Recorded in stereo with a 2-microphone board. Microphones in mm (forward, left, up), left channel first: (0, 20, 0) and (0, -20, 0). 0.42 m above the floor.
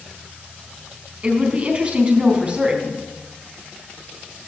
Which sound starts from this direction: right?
A woman speaking, at 1.2 s.